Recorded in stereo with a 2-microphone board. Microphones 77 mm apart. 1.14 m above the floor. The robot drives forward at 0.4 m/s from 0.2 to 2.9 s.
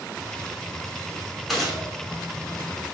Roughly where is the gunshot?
Centre.